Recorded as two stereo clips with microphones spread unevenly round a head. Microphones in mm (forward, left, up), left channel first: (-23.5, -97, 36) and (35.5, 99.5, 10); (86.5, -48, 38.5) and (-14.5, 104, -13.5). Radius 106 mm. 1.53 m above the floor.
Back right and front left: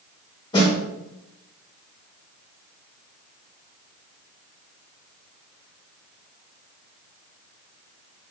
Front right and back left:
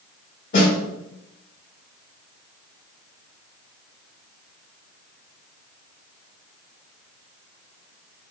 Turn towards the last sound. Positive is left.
turn(degrees=-45)